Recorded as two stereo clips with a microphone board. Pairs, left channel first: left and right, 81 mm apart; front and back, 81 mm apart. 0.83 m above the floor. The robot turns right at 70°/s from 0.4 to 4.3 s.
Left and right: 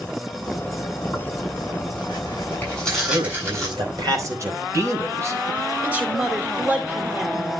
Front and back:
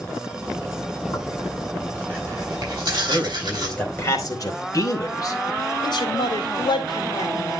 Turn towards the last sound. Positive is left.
turn(degrees=-20)